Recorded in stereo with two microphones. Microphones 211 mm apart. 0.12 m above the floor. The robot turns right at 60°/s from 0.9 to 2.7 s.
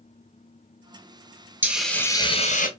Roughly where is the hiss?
Ahead.